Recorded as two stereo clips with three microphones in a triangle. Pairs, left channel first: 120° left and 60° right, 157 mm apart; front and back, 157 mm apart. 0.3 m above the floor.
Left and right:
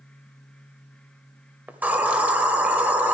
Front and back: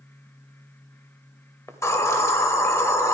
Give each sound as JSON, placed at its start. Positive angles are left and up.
{"t": 1.7, "sound": "a hiss", "azimuth_deg": -5, "distance_m": 1.2}